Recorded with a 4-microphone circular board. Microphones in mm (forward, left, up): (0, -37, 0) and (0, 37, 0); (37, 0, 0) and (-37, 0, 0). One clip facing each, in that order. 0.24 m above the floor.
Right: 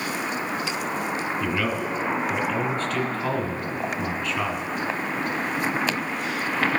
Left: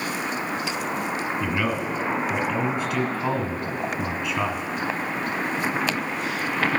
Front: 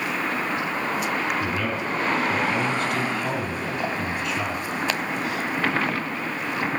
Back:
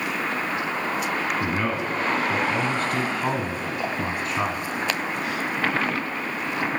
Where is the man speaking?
155° left, 1.6 m.